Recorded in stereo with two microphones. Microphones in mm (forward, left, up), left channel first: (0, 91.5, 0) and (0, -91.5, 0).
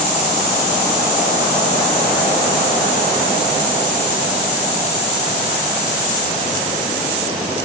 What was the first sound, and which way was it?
Only background noise.